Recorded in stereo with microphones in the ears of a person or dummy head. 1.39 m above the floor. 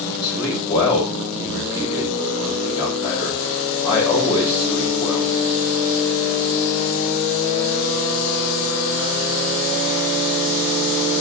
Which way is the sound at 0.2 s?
35° left (ahead or behind).